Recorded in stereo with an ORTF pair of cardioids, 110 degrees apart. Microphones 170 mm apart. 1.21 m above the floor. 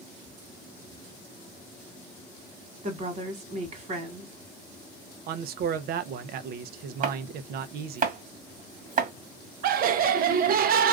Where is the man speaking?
65° right, 0.7 m.